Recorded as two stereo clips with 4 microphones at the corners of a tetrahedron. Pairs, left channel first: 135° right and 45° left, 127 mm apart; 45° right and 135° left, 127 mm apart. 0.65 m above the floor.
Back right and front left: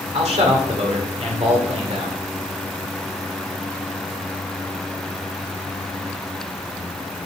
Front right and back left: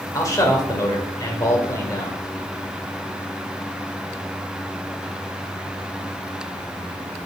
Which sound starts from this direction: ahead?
A man speaking, at 0.1 s.